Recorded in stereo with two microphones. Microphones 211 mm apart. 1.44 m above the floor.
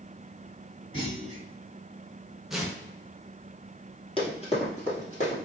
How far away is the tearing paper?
About 0.9 m.